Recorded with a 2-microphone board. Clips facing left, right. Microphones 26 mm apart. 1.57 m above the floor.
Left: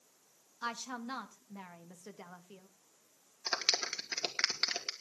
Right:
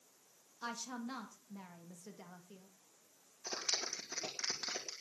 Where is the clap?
70° left (ahead or behind), 2 m.